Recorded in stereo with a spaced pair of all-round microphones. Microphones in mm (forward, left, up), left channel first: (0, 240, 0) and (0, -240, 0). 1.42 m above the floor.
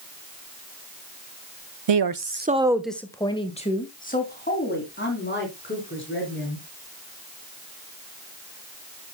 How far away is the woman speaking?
About 0.6 m.